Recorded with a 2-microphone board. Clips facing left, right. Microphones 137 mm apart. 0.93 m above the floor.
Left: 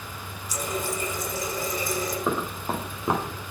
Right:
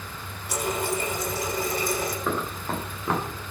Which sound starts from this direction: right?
A running tap, at 0.5 s.